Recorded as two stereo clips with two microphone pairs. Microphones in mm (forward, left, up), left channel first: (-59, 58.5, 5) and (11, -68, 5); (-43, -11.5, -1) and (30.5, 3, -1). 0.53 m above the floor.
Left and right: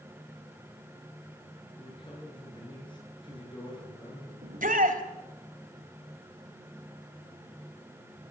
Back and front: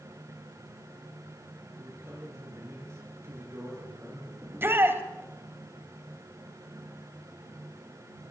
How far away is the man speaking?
About 8.5 m.